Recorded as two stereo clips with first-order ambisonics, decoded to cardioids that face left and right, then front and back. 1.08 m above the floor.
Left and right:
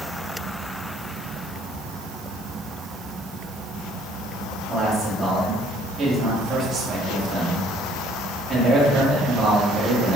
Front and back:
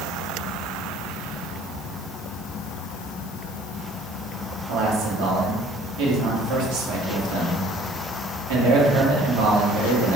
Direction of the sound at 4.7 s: 170° right.